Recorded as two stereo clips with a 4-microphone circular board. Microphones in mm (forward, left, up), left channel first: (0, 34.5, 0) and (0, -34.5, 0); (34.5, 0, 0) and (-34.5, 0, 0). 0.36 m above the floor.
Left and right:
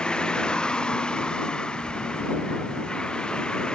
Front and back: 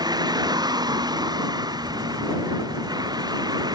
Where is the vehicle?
165° left.